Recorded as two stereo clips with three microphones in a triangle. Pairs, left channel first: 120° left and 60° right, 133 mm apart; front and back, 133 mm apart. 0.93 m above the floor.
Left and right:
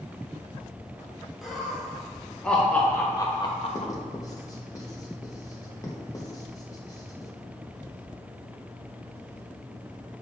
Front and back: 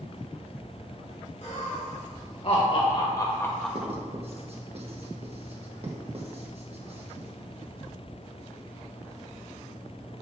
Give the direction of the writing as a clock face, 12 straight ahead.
6 o'clock.